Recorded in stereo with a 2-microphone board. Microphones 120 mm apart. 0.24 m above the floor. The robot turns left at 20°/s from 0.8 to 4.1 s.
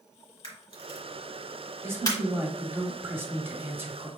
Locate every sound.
0.4 s a camera shutter: 50° left (ahead or behind), 1.8 m; by 2.2 s 30° left (ahead or behind), 1.8 m
1.8 s a man speaking: 20° right (ahead or behind), 1.0 m; by 4.1 s 15° right (ahead or behind), 1.0 m